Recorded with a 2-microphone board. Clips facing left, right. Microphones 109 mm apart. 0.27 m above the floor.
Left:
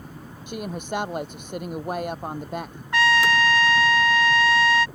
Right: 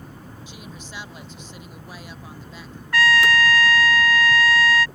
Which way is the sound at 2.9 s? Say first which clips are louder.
Right 1 dB; 25° left (ahead or behind).